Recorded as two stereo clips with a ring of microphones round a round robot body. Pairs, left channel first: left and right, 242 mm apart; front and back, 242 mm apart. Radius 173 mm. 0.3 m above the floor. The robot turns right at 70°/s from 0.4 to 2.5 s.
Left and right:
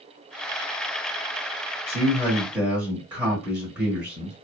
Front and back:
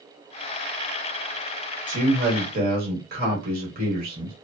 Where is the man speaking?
145° left, 1.3 m; by 4.3 s 170° right, 1.3 m.